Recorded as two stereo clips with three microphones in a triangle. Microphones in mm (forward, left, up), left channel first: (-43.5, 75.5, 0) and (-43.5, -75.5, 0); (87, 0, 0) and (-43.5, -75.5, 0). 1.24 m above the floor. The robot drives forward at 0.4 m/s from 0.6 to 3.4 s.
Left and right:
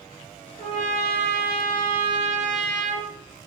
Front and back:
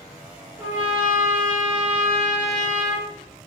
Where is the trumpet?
85° right, 2 m; by 3.1 s 115° right, 2.5 m.